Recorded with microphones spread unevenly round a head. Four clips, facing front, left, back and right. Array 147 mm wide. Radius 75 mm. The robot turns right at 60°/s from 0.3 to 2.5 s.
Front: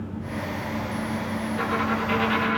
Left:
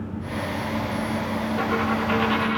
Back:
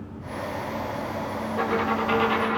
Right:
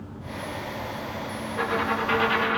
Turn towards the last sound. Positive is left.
turn(degrees=-145)